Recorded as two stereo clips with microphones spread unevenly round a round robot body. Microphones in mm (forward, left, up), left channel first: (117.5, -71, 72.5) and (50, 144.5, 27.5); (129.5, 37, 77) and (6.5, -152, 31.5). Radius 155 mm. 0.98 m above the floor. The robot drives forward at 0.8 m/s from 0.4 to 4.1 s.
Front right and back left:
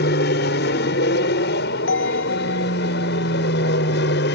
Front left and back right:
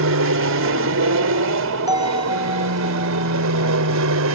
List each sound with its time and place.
0.0 s an aircraft: 130° right; by 4.3 s 125° right
1.9 s a bell: 45° right; by 4.2 s 75° right